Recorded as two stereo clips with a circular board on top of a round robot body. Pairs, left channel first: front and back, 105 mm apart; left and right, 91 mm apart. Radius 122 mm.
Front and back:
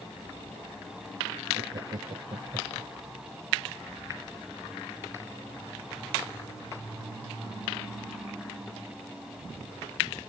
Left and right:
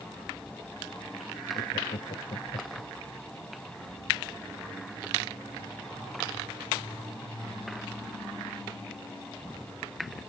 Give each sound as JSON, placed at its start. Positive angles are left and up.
{"t": 1.5, "sound": "laughter", "azimuth_deg": 130}